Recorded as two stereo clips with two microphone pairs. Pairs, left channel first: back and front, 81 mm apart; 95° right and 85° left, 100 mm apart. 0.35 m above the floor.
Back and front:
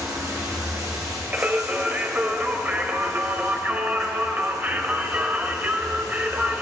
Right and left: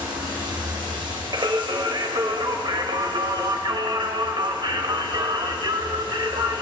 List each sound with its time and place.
0.0 s running water: 45° left, 3 m
1.3 s singing: 60° left, 0.7 m